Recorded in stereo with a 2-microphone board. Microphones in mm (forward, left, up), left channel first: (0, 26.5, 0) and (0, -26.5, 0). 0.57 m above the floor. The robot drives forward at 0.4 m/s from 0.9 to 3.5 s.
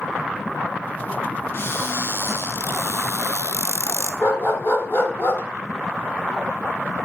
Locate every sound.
1.5 s a cupboard door: 45° left (ahead or behind), 1.3 m; by 4.1 s 65° left (ahead or behind), 1.0 m
4.2 s a dog barking: 55° left (ahead or behind), 1.6 m